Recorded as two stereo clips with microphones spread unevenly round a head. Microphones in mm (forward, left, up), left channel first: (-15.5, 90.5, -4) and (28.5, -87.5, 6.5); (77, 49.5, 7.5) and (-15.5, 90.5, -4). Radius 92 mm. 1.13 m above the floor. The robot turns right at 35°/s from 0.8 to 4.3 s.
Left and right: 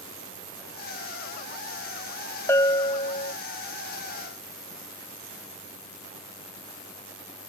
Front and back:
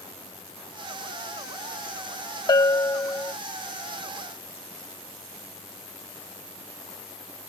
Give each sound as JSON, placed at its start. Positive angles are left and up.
{"t": 2.5, "sound": "a bell", "azimuth_deg": 25}